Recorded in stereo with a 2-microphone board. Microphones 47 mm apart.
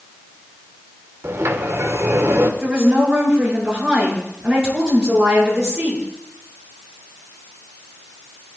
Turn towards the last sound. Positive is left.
turn(degrees=-15)  # may be behind; listen again after turning